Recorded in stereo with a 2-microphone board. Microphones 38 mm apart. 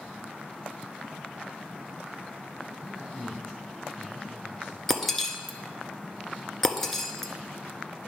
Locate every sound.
2.9 s a man speaking: 30° left (ahead or behind), 2.5 m
4.9 s breaking glass: 10° left (ahead or behind), 0.6 m